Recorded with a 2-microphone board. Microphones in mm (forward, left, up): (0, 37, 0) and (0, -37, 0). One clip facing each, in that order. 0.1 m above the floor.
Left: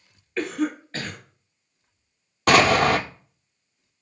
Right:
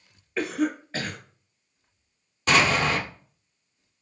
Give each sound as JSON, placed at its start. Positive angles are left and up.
{"t": 0.4, "sound": "a cough", "side_deg": -10, "distance_m": 1.1}
{"t": 2.5, "sound": "an explosion", "side_deg": 65, "distance_m": 0.6}